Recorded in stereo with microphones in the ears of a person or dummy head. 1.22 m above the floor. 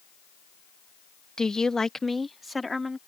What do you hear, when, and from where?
1.4 s a woman speaking: centre (ahead or behind); by 3.0 s 5° right (ahead or behind)